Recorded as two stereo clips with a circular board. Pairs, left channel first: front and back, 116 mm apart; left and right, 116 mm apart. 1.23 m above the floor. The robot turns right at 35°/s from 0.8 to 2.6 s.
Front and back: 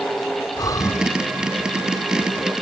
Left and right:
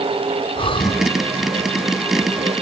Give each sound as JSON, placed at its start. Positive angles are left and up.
{"t": 0.6, "sound": "breathing", "azimuth_deg": 55}